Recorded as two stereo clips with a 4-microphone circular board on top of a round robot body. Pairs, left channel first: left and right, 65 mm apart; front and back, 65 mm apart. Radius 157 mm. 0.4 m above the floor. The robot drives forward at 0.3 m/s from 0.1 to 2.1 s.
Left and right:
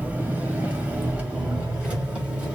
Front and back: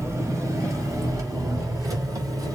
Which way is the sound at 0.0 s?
150° right.